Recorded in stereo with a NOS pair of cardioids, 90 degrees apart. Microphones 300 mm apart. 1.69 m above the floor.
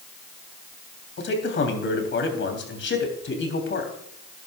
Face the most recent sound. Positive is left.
turn(degrees=40)